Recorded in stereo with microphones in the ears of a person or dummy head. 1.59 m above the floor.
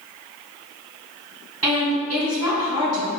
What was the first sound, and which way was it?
A woman speaking, 5° right (ahead or behind).